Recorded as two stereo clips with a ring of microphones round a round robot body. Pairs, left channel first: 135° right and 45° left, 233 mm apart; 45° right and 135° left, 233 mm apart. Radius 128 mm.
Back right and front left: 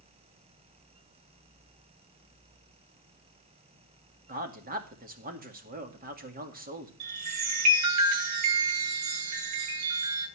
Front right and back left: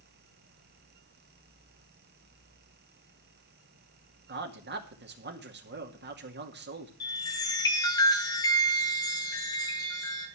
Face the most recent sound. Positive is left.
turn(degrees=30)